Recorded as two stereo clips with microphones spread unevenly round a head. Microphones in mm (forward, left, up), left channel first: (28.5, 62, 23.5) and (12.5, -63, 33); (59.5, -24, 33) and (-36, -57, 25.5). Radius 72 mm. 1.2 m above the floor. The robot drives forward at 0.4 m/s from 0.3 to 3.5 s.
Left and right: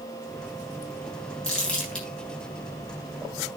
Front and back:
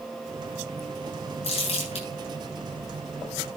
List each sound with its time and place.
1.4 s crumpling: straight ahead, 9.5 m